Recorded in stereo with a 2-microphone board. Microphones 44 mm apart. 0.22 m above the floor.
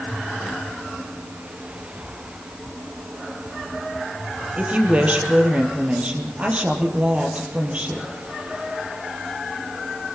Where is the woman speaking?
30° right (ahead or behind), 5 m.